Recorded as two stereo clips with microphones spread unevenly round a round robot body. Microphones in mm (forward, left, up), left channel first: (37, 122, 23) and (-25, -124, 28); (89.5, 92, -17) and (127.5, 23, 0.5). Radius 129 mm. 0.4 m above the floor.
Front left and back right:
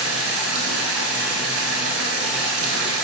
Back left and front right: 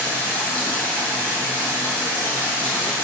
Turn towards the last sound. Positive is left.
turn(degrees=-150)